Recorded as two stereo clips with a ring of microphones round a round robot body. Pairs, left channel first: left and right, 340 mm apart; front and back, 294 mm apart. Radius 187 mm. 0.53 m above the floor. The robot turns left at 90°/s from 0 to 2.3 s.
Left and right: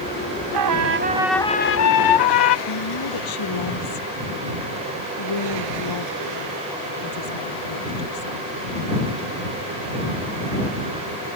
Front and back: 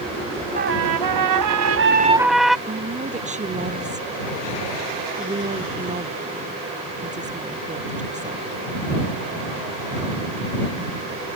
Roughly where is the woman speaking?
Behind left.